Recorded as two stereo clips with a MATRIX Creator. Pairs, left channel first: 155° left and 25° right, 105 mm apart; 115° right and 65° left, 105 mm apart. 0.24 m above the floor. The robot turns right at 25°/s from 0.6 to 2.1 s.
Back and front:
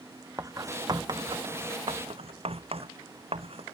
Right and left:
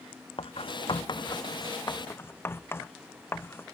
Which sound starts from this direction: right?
Writing, at 0.4 s.